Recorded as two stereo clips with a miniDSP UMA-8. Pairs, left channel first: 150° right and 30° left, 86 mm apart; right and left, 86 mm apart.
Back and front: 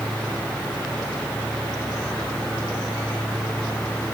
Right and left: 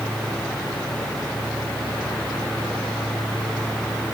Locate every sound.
Only background noise.